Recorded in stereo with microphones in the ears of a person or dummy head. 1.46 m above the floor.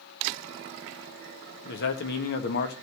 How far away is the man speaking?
About 1.4 m.